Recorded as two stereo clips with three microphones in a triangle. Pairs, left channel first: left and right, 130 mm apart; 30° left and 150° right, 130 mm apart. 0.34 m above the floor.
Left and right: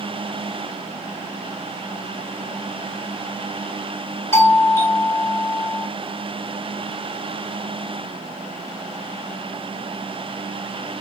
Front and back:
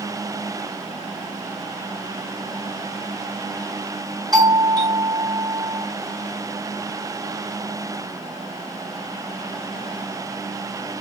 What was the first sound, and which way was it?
A doorbell, 155° left.